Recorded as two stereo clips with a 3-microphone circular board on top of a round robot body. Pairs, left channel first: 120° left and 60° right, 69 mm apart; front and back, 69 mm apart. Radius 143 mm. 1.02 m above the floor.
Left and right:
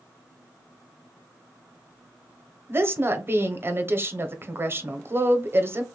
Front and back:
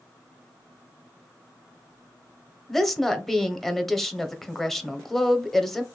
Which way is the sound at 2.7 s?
85° right.